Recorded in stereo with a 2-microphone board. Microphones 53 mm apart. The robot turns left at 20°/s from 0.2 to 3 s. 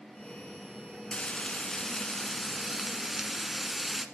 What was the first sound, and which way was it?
Frying, 30° left.